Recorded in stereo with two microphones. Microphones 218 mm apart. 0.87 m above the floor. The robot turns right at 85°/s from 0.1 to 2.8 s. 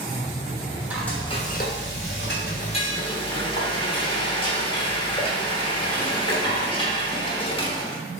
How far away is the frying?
About 0.8 m.